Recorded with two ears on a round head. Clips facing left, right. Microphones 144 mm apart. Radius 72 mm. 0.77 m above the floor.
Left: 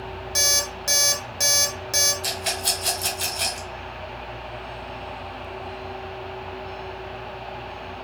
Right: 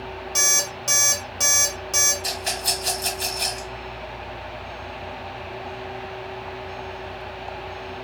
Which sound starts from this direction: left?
A rattle, at 2.2 s.